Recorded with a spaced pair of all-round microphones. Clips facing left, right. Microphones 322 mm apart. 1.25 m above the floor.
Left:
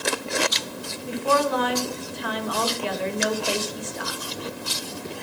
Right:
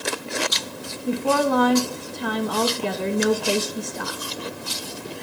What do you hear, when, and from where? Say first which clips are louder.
1.1 s a woman speaking: right 3 dB; 55° right (ahead or behind), 1.9 m